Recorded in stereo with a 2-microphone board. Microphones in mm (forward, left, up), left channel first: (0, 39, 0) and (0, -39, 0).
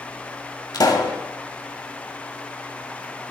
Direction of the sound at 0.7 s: 55° left (ahead or behind).